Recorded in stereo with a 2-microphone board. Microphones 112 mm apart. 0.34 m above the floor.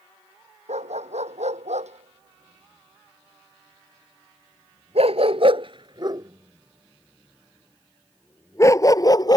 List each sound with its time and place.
0.7 s a dog barking: 85° right; by 9.4 s 35° left (ahead or behind)